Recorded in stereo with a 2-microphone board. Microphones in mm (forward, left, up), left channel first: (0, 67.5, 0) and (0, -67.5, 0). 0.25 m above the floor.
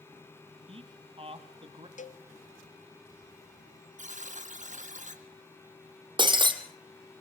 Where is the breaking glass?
35° right (ahead or behind), 2.5 m.